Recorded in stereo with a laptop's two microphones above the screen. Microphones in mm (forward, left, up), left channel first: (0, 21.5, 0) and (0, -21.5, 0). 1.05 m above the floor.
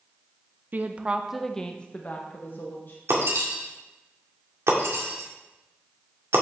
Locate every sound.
0.7 s a woman speaking: 45° right (ahead or behind), 0.6 m; by 3.0 s 50° left (ahead or behind), 1.2 m
3.1 s breaking glass: 80° right, 1.9 m